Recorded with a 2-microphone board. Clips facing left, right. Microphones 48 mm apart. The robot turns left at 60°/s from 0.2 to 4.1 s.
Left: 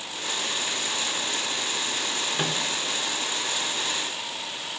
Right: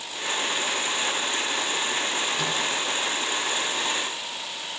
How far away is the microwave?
About 1.2 m.